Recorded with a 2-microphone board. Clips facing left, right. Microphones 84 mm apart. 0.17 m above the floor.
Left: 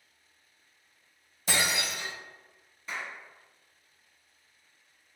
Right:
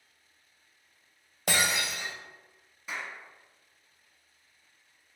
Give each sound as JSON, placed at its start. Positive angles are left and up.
{"t": 1.5, "sound": "breaking glass", "side_deg": -65, "distance_m": 1.5}
{"t": 2.9, "sound": "a clap", "side_deg": -5, "distance_m": 1.2}